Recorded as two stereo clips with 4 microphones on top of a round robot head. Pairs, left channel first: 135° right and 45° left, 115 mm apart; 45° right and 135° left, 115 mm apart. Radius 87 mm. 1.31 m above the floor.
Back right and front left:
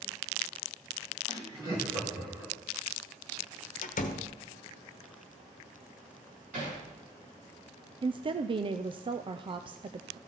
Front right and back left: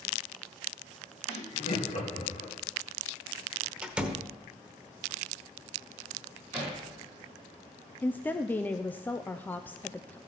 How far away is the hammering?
About 6 m.